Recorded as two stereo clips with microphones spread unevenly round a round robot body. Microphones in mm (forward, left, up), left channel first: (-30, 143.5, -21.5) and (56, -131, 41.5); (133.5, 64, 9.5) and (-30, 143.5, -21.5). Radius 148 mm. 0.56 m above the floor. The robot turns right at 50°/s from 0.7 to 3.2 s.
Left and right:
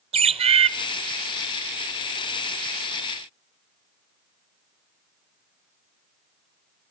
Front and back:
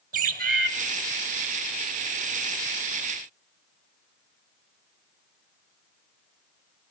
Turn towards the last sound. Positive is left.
turn(degrees=-20)